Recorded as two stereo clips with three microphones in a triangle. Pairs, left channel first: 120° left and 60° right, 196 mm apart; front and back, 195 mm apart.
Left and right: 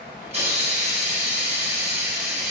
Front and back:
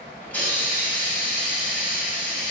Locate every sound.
0.2 s a hiss: 75° right, 1.3 m